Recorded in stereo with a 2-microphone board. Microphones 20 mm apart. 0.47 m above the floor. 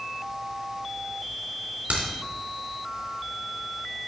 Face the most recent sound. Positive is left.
turn(degrees=-85)